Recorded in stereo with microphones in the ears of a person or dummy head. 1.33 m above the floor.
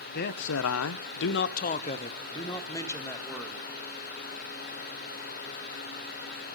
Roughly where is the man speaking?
Left.